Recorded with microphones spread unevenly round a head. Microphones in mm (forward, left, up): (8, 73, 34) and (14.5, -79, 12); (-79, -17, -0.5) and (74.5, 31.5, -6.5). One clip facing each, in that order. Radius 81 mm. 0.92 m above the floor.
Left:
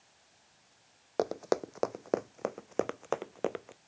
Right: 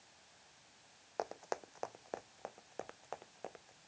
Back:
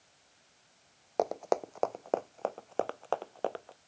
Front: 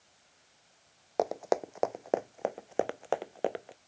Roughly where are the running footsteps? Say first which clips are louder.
Left 11 dB, front 1 dB; left.